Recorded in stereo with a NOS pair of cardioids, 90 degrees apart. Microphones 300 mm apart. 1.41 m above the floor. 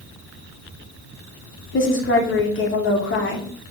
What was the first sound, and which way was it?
A woman speaking, 40° left.